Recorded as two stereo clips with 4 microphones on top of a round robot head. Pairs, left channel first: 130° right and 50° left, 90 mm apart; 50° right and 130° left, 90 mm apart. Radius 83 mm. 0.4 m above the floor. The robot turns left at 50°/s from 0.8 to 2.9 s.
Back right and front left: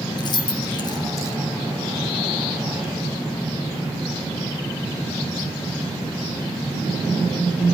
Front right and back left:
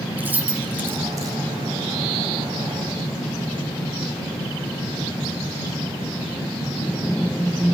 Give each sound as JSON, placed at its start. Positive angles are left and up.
{"t": 0.2, "sound": "keys jangling", "azimuth_deg": -165, "distance_m": 2.5}